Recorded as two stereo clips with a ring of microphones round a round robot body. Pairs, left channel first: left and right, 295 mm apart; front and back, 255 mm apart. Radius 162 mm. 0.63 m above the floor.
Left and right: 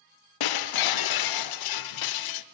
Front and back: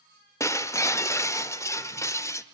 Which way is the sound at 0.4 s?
80° left.